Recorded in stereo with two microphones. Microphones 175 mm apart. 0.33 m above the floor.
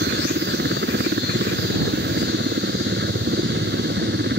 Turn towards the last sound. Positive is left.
turn(degrees=-70)  # may be behind; listen again after turning